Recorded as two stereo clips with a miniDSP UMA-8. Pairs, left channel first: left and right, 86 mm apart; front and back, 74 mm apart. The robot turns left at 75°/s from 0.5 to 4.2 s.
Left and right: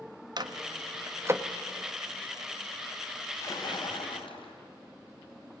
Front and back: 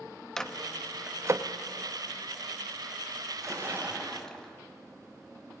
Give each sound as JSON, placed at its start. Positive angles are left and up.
{"t": 0.4, "sound": "a microwave", "azimuth_deg": -80, "distance_m": 1.0}
{"t": 3.3, "sound": "a splash", "azimuth_deg": 150, "distance_m": 2.5}